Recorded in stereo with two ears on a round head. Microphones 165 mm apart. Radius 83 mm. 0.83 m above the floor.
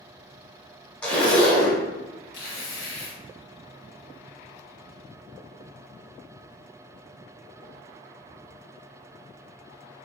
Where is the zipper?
5° left (ahead or behind), 1.0 m.